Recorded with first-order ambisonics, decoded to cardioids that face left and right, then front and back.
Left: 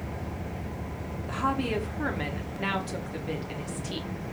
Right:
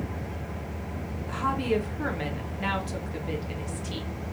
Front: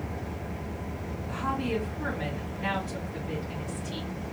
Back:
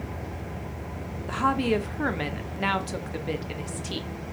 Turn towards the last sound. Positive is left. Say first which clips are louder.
# right 1 dB, back 6 dB
turn(degrees=175)